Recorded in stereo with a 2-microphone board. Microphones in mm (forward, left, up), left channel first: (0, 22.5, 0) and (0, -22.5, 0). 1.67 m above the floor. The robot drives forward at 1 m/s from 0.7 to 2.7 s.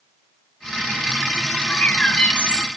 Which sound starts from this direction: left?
A bird, at 1.7 s.